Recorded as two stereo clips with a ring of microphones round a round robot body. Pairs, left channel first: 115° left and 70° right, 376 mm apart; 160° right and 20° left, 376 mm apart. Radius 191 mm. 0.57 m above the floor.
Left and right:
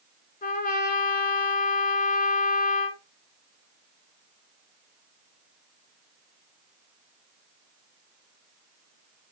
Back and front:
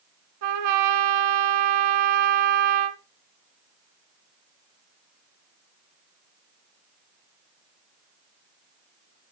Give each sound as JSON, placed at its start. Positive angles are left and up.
{"t": 0.4, "sound": "a trumpet", "azimuth_deg": 45, "distance_m": 1.0}